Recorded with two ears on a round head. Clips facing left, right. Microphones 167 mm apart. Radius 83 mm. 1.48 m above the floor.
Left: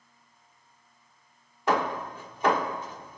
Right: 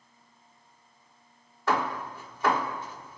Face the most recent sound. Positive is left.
turn(degrees=15)  # may be behind; listen again after turning